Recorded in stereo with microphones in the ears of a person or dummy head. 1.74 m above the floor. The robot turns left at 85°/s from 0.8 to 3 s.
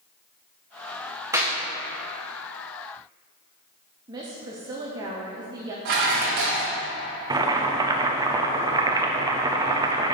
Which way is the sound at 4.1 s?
20° right (ahead or behind).